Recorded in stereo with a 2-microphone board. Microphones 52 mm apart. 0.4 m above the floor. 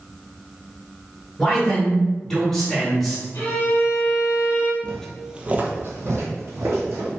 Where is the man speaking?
10° left (ahead or behind), 1.2 m; by 3.2 s centre (ahead or behind), 1.3 m.